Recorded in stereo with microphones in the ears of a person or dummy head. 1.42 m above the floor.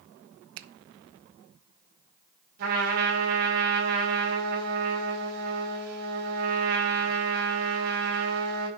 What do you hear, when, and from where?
0.6 s a finger snap: 65° right (ahead or behind), 0.7 m
2.6 s a trumpet: 55° right (ahead or behind), 6 m